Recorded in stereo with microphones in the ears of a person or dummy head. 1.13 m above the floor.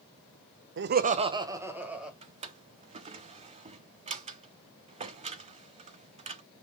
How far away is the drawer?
About 0.6 m.